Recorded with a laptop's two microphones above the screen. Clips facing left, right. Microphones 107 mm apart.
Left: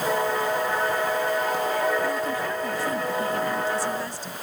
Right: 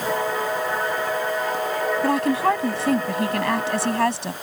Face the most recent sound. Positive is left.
turn(degrees=-85)